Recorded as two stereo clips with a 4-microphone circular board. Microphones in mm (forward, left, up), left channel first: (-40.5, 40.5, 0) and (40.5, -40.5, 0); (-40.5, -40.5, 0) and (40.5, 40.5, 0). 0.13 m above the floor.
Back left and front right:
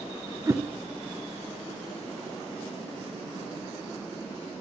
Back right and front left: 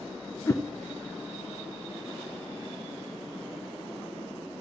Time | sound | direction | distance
0.5 | a whoosh | 85° right | 1.1 m